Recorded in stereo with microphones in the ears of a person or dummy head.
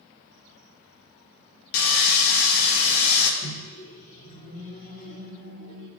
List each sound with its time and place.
1.7 s sawing: 70° left (ahead or behind), 1.1 m
3.4 s a microwave: 45° left (ahead or behind), 2 m